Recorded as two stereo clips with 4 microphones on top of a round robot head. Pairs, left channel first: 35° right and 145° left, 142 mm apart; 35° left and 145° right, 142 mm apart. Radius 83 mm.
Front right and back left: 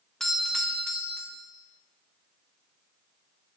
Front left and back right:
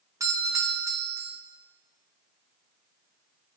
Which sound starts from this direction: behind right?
A doorbell, at 0.2 s.